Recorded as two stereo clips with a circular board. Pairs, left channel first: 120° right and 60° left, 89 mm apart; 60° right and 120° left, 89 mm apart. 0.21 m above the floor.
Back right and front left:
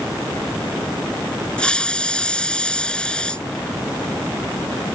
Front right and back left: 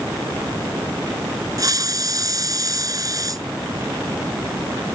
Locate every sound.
1.6 s a hiss: 160° left